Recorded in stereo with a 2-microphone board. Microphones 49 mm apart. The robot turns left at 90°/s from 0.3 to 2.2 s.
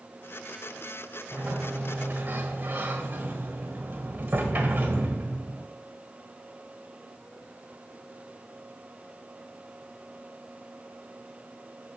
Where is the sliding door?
50° right, 1.3 m; by 5.7 s 130° right, 1.3 m.